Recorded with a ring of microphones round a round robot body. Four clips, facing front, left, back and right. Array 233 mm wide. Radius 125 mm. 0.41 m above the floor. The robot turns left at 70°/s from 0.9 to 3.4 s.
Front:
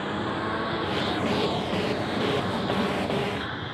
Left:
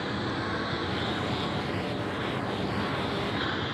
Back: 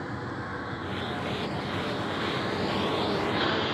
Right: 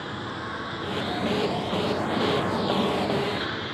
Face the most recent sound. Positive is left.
turn(degrees=-175)